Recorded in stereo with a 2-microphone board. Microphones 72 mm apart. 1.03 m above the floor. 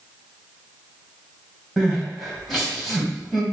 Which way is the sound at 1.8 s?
5° left (ahead or behind).